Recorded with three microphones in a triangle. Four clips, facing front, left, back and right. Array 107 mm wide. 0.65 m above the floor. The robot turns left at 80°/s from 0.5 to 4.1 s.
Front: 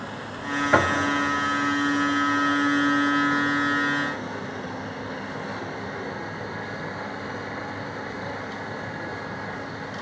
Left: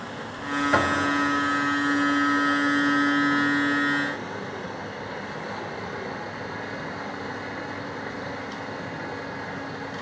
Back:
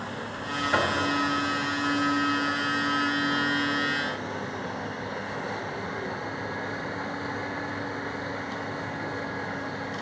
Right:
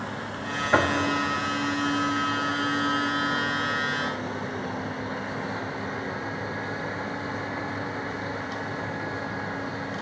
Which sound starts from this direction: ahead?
Knocking, at 0.7 s.